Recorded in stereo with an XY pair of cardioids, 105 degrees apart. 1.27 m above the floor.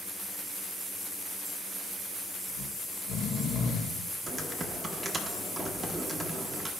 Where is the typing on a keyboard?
15° right, 1.1 m.